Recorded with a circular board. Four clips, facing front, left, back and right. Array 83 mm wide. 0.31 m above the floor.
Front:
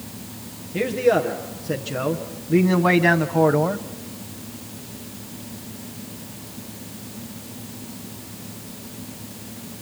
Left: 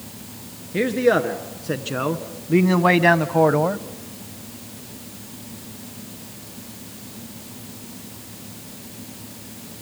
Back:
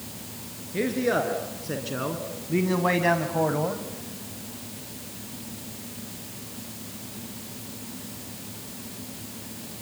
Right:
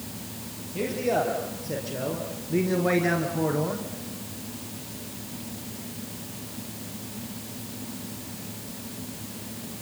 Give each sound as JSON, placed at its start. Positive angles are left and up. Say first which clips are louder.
{"t": 0.7, "sound": "a man speaking", "louder": "left 8 dB, front 5 dB", "azimuth_deg": 90, "distance_m": 3.5}